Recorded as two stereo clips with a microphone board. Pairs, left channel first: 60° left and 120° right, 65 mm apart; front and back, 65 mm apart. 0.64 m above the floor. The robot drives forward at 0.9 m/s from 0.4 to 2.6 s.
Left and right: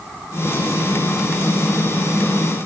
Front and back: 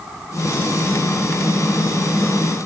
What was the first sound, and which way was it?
Only background noise.